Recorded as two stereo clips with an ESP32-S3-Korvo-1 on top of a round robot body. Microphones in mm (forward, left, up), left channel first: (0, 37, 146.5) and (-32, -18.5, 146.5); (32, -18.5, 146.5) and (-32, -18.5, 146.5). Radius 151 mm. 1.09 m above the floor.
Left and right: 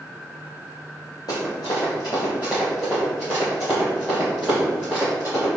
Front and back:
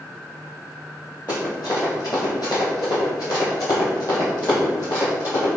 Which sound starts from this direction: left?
Running footsteps, at 1.3 s.